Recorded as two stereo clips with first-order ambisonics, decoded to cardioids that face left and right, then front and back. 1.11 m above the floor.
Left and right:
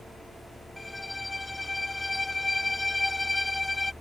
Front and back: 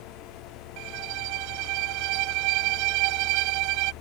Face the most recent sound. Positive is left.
turn(degrees=175)